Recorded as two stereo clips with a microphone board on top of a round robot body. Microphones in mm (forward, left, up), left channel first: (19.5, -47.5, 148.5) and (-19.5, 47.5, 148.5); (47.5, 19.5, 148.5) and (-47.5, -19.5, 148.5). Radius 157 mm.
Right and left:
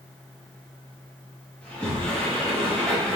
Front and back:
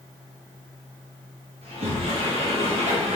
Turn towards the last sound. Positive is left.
turn(degrees=-150)